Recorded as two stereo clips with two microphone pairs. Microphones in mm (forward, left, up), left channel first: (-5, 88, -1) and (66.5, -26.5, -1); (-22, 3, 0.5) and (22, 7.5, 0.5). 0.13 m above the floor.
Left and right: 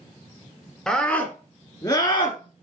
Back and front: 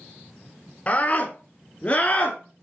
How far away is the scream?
About 1.4 m.